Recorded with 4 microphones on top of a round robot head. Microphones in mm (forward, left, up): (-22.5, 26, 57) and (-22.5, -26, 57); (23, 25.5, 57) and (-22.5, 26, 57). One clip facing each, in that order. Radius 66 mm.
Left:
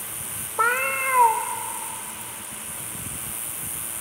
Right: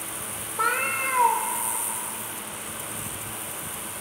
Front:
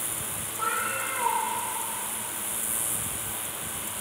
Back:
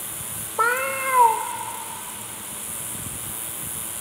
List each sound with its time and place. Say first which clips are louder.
0.6 s a cat meowing: left 3 dB, back 7 dB; 160° left, 0.5 m